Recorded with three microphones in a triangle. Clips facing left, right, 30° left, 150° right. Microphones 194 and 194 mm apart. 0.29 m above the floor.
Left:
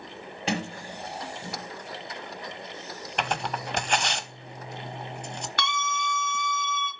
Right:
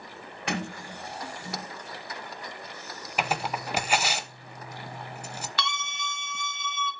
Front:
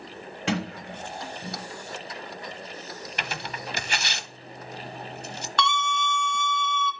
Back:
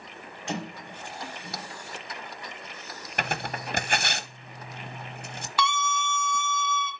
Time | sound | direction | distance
0.5 | a sliding door | 30° left | 2.5 m
3.2 | tearing paper | 175° right | 0.9 m
5.6 | a scream | 125° left | 3 m